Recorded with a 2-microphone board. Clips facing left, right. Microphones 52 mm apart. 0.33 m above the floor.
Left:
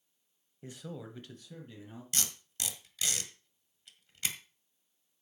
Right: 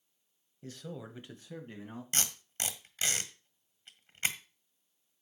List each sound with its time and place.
0.6 s a man speaking: 20° left (ahead or behind), 1.4 m; by 2.0 s 50° right (ahead or behind), 2 m
2.1 s tape being pulled: 40° right (ahead or behind), 1.5 m